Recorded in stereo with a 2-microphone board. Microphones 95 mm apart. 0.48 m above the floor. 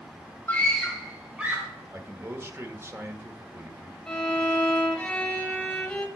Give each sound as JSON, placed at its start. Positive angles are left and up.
{"t": 0.5, "sound": "a scream", "side_deg": 20, "distance_m": 1.2}
{"t": 1.9, "sound": "a man speaking", "side_deg": -30, "distance_m": 1.3}
{"t": 4.1, "sound": "a violin", "side_deg": 10, "distance_m": 1.5}